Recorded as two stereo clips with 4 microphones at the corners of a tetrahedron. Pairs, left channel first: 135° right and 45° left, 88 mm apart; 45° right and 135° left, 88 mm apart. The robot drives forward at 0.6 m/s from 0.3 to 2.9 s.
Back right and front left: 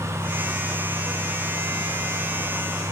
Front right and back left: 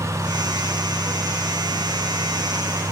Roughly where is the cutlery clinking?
I don't hear cutlery clinking.